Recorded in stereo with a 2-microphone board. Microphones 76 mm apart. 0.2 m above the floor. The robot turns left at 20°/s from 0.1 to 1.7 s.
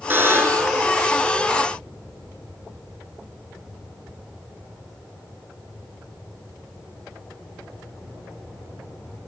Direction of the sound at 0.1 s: 25° right (ahead or behind).